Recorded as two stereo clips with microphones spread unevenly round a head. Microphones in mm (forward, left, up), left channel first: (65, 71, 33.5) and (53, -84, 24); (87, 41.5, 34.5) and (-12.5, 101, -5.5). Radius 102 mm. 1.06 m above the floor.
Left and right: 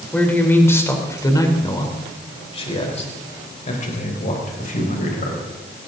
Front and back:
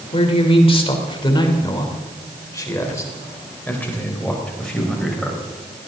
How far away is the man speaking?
About 3.5 m.